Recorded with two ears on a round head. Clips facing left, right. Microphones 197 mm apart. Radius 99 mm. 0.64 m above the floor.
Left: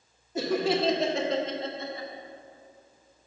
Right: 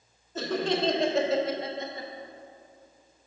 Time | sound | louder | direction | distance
0.3 | laughter | left 2 dB | 10° left (ahead or behind) | 1.2 m